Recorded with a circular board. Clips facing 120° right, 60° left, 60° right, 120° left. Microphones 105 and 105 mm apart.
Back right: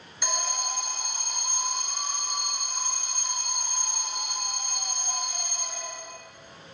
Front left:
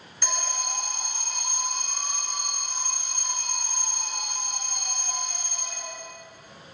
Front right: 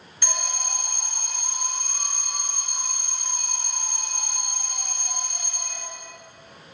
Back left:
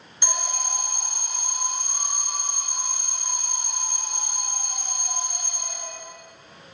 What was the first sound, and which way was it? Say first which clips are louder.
An alarm: even, back left 2 dB; 160° left.